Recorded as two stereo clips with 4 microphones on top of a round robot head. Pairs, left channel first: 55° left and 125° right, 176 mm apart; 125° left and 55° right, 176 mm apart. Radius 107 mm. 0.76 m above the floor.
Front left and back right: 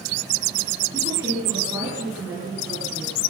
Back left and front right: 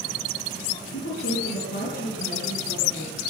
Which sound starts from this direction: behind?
A woman speaking, at 0.9 s.